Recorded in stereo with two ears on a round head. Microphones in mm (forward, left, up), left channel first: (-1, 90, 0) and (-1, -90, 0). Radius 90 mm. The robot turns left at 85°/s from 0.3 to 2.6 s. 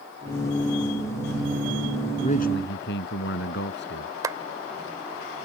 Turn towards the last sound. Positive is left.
turn(degrees=-20)  # may be behind; listen again after turning